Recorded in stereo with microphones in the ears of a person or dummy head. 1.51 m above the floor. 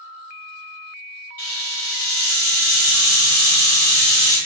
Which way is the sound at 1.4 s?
10° left (ahead or behind).